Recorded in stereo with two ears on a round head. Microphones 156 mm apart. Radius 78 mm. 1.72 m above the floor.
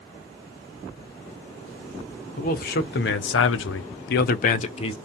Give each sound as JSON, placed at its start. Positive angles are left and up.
{"t": 2.4, "sound": "a man speaking", "side_deg": 50, "distance_m": 1.0}